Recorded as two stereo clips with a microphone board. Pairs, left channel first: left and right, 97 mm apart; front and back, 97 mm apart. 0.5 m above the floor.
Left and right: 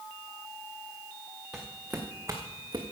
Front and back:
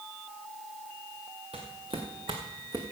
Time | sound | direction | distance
1.5 | footsteps | 175° right | 3 m